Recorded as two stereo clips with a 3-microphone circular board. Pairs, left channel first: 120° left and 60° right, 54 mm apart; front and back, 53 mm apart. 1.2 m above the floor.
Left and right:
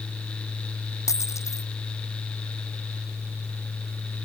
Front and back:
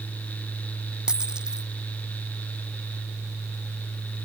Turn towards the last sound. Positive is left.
turn(degrees=105)